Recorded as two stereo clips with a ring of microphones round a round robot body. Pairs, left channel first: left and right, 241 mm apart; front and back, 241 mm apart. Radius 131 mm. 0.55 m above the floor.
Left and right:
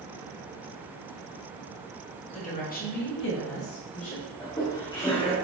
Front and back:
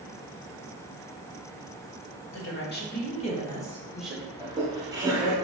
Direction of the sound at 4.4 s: 130° left.